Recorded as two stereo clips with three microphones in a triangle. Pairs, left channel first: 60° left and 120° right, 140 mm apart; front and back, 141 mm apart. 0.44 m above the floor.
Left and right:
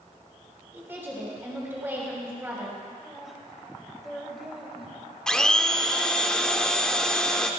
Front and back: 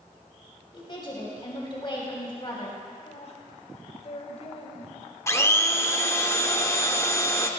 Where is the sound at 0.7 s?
50° right, 3 m.